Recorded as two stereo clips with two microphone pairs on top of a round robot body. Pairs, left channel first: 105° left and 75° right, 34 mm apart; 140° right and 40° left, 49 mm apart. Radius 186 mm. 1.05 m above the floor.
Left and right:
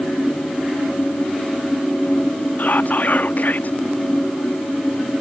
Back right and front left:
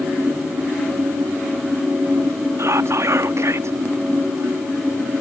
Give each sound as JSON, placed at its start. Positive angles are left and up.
{"t": 2.6, "sound": "whispering", "azimuth_deg": 70}